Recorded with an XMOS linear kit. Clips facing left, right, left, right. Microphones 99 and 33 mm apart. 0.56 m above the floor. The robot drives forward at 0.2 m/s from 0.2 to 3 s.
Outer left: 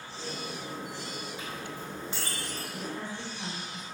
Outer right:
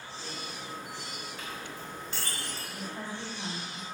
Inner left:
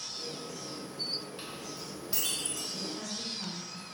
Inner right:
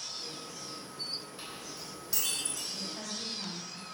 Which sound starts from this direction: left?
A woman speaking, at 2.7 s.